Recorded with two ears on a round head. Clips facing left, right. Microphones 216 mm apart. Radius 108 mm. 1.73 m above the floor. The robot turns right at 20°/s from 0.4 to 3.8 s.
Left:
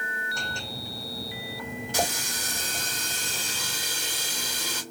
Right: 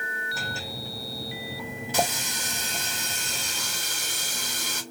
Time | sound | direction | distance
1.9 | a running tap | 85° right | 2.5 m